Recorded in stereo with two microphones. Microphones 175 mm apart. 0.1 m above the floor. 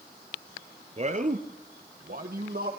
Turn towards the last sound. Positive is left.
turn(degrees=-60)  # may be behind; listen again after turning